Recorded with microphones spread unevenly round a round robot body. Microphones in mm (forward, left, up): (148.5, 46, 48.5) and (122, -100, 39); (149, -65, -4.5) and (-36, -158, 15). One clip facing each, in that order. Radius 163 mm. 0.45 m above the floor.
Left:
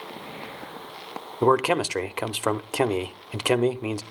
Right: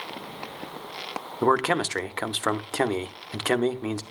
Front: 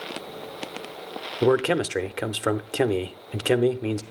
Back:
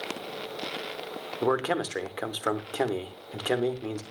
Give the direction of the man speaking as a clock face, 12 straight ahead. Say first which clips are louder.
Left 2 dB, front 6 dB; 12 o'clock.